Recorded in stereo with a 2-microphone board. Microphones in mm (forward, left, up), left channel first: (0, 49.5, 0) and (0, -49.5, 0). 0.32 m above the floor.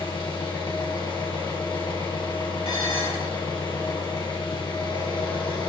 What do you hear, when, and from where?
0.0 s an engine running: 50° left (ahead or behind), 2.5 m
2.6 s dishes clattering: 75° left (ahead or behind), 5 m